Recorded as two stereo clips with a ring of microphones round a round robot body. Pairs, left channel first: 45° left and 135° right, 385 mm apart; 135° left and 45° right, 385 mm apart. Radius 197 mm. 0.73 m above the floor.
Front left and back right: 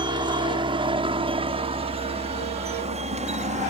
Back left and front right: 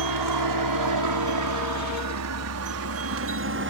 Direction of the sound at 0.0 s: 60° right.